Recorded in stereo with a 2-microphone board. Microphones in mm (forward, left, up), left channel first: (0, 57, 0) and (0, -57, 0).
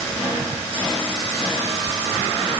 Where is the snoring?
No snoring in this recording.